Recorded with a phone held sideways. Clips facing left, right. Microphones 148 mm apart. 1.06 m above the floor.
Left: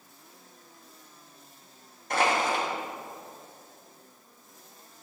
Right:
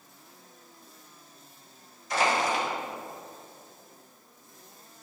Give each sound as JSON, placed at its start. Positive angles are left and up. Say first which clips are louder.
{"t": 2.1, "sound": "crushing", "louder": "even", "side_deg": 55, "distance_m": 1.5}